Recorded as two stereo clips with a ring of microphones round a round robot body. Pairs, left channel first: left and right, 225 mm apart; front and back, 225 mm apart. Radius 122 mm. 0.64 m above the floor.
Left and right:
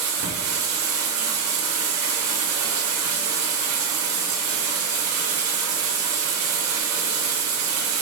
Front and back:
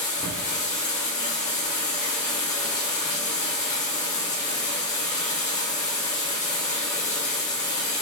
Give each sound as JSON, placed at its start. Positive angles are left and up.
{"t": 0.0, "sound": "running water", "azimuth_deg": -60, "distance_m": 2.0}